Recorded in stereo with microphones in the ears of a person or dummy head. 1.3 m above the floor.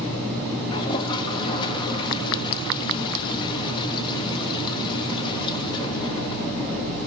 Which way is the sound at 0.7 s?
25° left (ahead or behind).